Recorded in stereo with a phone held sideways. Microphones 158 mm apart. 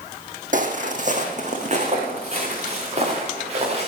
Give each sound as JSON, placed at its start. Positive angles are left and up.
{"t": 0.5, "sound": "footsteps", "side_deg": -55, "distance_m": 2.0}